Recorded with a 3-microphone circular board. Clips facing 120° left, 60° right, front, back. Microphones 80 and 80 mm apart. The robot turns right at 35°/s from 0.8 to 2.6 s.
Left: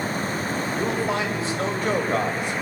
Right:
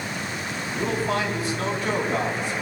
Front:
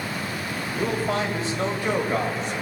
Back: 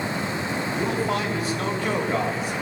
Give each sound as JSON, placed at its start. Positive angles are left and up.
{"t": 0.7, "sound": "a man speaking", "azimuth_deg": 35, "distance_m": 3.5}